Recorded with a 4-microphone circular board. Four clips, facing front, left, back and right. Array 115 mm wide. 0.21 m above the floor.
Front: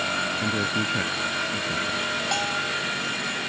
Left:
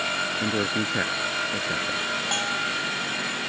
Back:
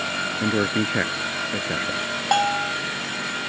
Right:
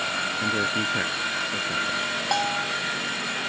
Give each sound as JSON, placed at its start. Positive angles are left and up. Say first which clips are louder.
{"t": 0.4, "sound": "a man speaking", "louder": "right 1 dB, back 8 dB", "azimuth_deg": 165}
{"t": 2.3, "sound": "a bell", "louder": "right 6 dB, back 11 dB", "azimuth_deg": -165}